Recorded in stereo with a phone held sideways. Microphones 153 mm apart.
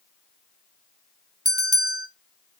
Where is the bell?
25° right (ahead or behind), 0.9 m.